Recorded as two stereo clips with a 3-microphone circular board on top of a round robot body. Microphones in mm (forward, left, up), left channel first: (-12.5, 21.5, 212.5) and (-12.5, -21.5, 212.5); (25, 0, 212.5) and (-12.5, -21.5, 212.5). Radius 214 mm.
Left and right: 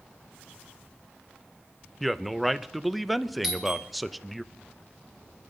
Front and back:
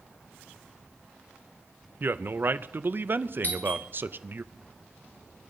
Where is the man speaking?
Straight behind, 0.9 m.